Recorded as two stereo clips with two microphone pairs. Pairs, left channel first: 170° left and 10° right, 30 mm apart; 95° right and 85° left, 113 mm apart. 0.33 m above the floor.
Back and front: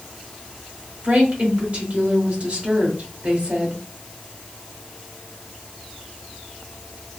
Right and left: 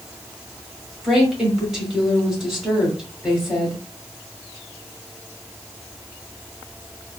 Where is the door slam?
I don't hear a door slam.